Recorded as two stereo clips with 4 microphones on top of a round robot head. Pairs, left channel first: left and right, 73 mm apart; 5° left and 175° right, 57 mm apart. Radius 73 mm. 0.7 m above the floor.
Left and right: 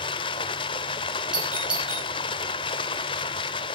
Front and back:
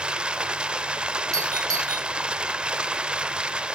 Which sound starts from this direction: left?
Running water, at 0.0 s.